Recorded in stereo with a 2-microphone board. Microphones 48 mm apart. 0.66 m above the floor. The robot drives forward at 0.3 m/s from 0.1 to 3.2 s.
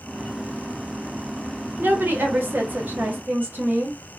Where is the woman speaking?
45° right (ahead or behind), 1.1 m; by 4.0 s 40° right (ahead or behind), 1.2 m.